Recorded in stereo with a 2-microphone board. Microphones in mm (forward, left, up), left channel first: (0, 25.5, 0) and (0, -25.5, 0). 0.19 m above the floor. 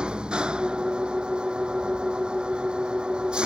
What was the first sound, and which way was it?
An engine running, 15° right (ahead or behind).